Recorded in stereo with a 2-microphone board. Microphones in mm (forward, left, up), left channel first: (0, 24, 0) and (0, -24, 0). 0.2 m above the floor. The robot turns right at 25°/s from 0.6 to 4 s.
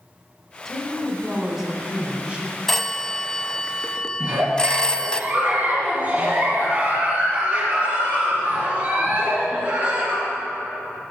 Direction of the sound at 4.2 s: 40° right (ahead or behind).